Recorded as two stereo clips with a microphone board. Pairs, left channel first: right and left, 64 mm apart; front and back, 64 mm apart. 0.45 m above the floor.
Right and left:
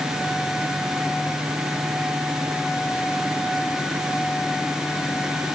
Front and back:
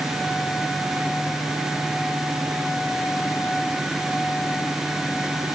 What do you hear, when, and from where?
Only background noise.